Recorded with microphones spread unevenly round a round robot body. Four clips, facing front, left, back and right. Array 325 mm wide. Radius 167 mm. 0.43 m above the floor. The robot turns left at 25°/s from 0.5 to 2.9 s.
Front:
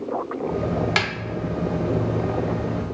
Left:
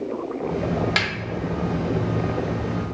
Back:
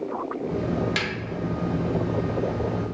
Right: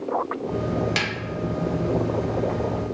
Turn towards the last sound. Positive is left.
turn(degrees=-50)